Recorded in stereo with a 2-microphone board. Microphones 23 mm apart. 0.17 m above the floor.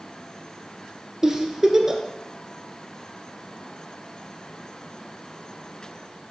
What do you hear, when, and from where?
1.2 s a giggle: 20° right (ahead or behind), 1.6 m